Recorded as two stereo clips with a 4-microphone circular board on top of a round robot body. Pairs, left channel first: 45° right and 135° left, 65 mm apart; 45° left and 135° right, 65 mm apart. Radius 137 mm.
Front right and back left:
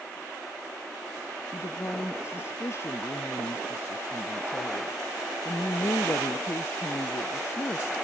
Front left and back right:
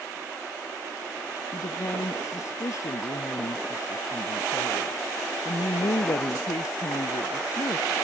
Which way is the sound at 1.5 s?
5° left.